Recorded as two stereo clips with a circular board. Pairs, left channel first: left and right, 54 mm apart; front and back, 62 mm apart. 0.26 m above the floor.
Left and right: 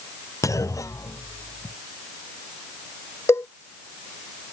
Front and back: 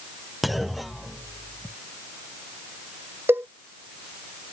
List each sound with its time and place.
0.4 s a clunk: 90° left
3.3 s a cowbell: 125° left